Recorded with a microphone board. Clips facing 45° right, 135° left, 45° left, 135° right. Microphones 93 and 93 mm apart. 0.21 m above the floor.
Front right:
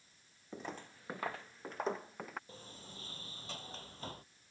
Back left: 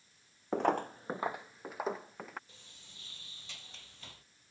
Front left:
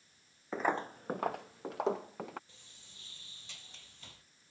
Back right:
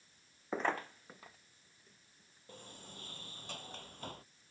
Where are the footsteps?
145° left; by 2.4 s 45° left.